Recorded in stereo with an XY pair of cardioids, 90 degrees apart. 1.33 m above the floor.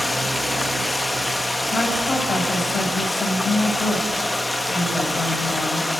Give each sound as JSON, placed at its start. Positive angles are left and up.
{"t": 0.0, "sound": "running water", "azimuth_deg": 15, "distance_m": 1.4}
{"t": 1.7, "sound": "a woman speaking", "azimuth_deg": 45, "distance_m": 6.5}